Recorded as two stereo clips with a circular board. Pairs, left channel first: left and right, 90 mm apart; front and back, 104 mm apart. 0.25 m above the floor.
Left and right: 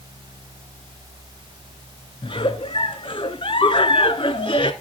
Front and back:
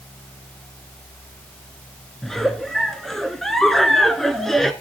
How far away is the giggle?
About 0.8 m.